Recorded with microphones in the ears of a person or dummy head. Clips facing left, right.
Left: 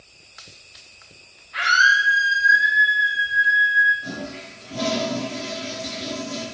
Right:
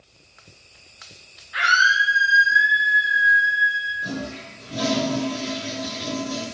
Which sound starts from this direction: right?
A toilet flushing, at 4.0 s.